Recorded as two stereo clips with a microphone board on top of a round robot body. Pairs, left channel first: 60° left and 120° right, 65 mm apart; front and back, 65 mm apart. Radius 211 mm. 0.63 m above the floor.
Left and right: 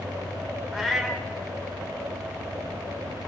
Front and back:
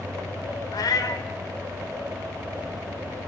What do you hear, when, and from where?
0.7 s a cat meowing: 30° right, 0.8 m